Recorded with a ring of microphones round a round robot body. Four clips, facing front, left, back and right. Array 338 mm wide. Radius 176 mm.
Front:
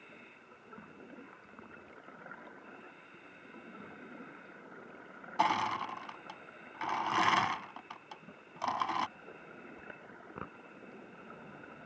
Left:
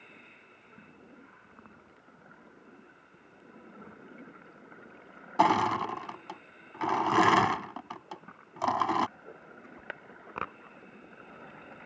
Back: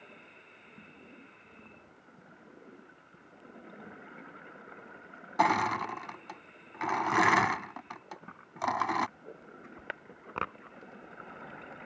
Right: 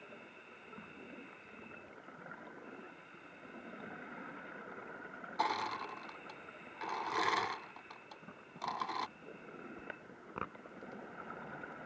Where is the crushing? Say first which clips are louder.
Left 12 dB, back 4 dB; 105° left.